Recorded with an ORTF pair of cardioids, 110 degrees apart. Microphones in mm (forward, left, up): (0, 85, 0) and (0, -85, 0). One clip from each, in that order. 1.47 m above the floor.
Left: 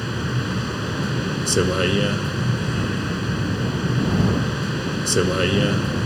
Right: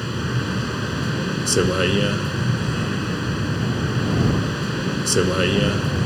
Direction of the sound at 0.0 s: 5° right.